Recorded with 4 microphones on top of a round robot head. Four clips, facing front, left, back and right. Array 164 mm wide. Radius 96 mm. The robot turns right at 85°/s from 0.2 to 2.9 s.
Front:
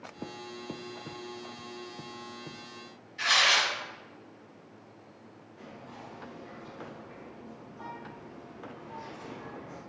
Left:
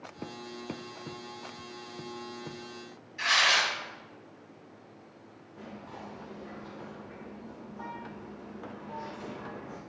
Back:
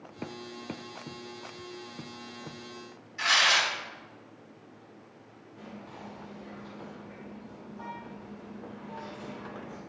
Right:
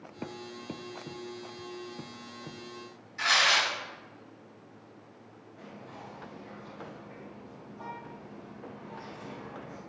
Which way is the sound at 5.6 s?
115° left.